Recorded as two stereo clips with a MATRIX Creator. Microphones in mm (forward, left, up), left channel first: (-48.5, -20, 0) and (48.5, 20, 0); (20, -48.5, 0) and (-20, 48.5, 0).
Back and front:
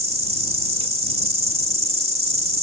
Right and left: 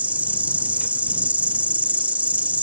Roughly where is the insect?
Ahead left.